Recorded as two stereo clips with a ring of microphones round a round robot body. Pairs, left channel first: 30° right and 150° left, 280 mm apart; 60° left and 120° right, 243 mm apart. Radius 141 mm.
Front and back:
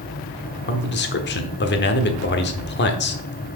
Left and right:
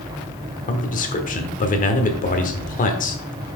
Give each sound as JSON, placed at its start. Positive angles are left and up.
{"t": 0.7, "sound": "a man speaking", "azimuth_deg": 10, "distance_m": 1.1}